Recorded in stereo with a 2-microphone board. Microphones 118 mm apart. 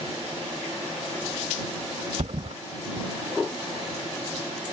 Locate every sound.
2.2 s a thud: 65° right (ahead or behind)